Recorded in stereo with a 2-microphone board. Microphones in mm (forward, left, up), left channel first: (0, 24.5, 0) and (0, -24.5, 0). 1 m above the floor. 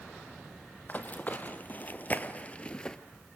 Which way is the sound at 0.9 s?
35° left (ahead or behind).